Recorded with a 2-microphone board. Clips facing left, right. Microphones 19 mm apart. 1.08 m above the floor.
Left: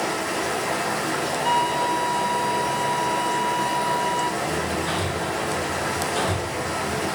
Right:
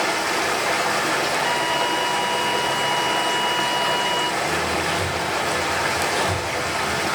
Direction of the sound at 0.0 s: 70° right (ahead or behind).